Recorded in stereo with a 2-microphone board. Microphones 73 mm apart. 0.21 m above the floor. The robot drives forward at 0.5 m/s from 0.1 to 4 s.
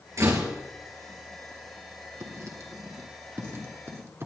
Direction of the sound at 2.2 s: 50° right (ahead or behind).